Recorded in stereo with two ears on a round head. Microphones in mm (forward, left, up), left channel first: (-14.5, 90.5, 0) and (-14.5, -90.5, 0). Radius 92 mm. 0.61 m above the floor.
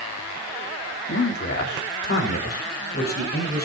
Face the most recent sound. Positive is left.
turn(degrees=50)  # may be behind; listen again after turning